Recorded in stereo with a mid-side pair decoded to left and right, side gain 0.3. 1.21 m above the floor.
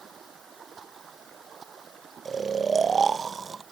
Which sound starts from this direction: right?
Running water, at 0.0 s.